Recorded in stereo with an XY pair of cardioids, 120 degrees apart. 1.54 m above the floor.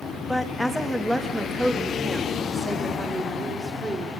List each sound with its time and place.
0.3 s a woman speaking: 5° left, 1.7 m; by 4.1 s 20° right, 4.5 m